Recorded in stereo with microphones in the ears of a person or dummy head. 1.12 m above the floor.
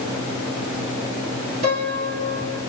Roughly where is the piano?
Right.